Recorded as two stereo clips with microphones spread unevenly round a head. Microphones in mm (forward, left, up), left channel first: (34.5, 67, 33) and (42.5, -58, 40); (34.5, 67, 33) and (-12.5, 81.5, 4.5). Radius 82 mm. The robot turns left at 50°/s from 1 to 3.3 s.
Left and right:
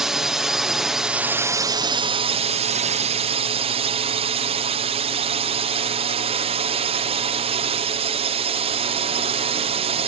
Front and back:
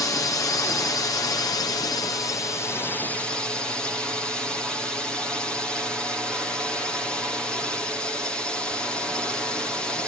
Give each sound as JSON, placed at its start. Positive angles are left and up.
{"t": 0.0, "sound": "a drone", "azimuth_deg": 0}